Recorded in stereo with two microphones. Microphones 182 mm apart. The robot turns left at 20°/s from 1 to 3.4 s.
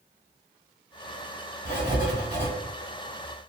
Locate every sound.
1.6 s writing: 60° right (ahead or behind), 1.9 m; by 2.5 s 70° right (ahead or behind), 1.9 m